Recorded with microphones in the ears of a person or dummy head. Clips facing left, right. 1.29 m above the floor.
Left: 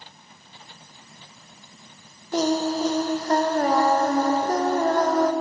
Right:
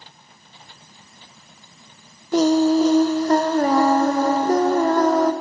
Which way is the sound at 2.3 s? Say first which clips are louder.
Right 7 dB; 65° right (ahead or behind).